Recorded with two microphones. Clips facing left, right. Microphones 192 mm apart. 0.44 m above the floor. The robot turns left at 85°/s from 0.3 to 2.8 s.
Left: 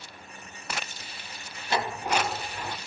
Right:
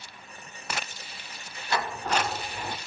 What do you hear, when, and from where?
1.7 s a sliding door: 25° left (ahead or behind), 0.7 m; by 2.8 s 15° right (ahead or behind), 0.7 m